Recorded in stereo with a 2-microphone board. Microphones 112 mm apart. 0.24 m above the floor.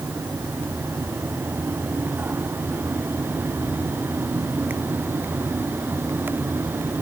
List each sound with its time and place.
Only background noise.